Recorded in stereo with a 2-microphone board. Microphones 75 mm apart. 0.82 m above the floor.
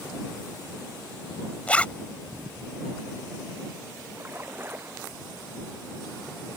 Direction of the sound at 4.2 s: 25° right (ahead or behind).